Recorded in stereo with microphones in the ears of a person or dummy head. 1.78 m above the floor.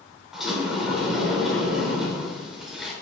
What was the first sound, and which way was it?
A sliding door, centre (ahead or behind).